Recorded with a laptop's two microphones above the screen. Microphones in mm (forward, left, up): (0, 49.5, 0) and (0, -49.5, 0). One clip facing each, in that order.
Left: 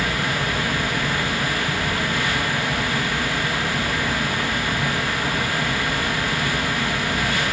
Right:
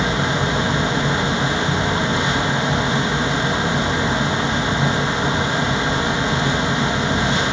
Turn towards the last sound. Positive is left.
turn(degrees=-20)  # may be behind; listen again after turning